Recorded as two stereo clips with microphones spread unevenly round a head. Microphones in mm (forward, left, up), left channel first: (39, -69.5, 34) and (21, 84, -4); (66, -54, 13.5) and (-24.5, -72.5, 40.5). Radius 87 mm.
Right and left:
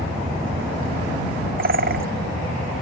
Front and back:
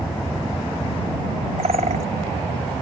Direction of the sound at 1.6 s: 140° left.